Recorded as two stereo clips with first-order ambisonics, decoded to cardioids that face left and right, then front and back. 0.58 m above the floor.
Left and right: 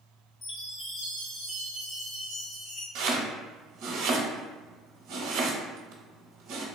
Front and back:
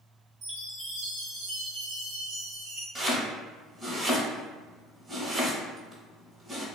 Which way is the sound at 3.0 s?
110° right.